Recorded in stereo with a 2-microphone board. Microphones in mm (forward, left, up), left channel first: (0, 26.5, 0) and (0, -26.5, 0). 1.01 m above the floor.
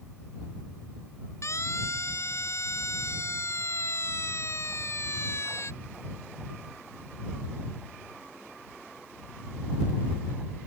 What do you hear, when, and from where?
1.4 s a siren: 65° left (ahead or behind); by 5.7 s 55° left (ahead or behind)